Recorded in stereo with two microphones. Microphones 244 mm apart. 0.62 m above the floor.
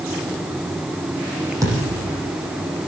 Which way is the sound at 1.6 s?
15° right (ahead or behind).